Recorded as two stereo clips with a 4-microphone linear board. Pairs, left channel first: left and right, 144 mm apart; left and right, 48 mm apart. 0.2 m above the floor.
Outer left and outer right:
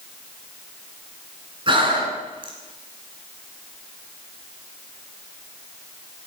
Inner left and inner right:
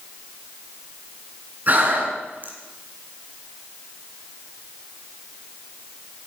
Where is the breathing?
40° right (ahead or behind), 2.5 m.